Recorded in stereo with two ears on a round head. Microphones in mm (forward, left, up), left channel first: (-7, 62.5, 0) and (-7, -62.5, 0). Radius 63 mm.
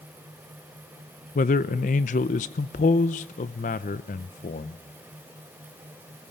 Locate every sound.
1.4 s a man speaking: 55° left (ahead or behind), 0.7 m